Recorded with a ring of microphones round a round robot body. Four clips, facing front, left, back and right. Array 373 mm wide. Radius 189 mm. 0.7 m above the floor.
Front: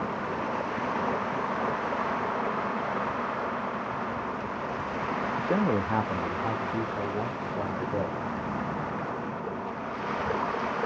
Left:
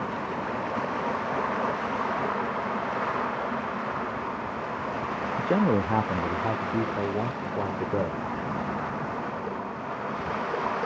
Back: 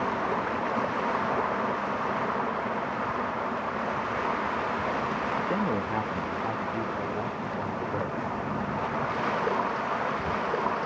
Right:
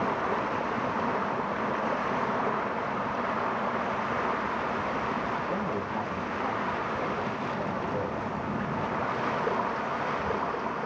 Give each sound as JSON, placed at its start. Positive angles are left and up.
{"t": 5.4, "sound": "a man speaking", "azimuth_deg": 65, "distance_m": 0.6}